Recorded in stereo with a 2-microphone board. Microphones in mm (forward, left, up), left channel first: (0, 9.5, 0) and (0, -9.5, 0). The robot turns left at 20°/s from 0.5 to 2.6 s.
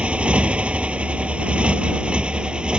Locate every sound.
0.0 s a motorcycle: 70° right; by 2.8 s 110° right